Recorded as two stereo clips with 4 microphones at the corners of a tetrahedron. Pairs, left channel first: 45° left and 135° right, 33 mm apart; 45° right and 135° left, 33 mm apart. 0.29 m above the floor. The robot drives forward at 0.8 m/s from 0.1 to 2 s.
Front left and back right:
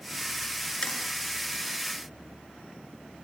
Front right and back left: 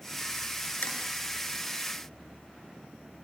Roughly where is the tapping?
Ahead.